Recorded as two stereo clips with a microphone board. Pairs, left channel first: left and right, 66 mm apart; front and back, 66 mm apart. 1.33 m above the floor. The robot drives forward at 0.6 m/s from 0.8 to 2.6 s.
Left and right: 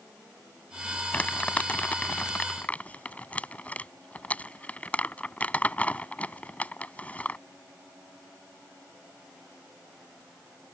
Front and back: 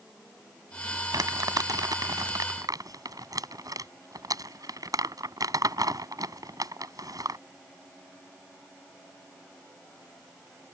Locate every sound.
1.1 s crumpling: 155° left; by 7.4 s 160° left